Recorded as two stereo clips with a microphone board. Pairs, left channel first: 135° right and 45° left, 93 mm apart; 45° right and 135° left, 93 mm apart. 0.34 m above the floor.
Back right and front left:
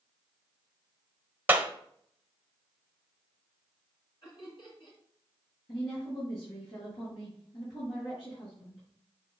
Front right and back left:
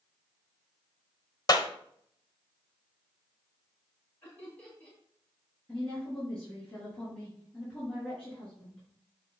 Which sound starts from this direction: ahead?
A clap, at 1.5 s.